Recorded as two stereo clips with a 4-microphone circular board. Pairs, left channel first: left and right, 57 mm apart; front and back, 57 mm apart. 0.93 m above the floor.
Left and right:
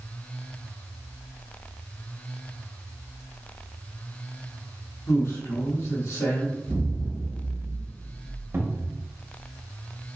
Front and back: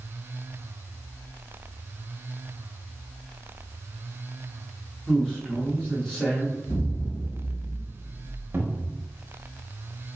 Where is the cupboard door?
130° right, 0.7 m.